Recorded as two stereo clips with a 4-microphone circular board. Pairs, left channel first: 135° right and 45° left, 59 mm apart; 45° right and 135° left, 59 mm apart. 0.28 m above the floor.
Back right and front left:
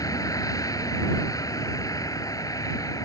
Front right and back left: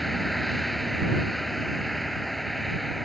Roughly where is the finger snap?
I don't hear a finger snap.